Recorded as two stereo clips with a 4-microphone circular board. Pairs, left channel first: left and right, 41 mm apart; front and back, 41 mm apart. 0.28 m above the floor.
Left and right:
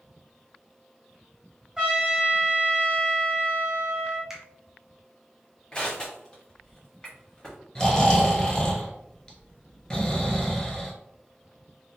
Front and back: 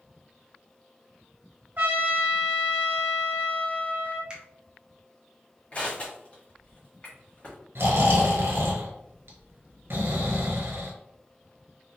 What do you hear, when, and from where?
1.8 s a trumpet: 165° right, 1.5 m
4.3 s a finger snap: 150° right, 0.7 m
5.7 s crushing: 35° left, 1.1 m
7.8 s snoring: 160° left, 1.0 m